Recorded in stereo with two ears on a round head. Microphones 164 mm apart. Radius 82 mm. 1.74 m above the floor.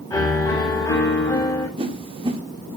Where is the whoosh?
30° right (ahead or behind), 1.9 m.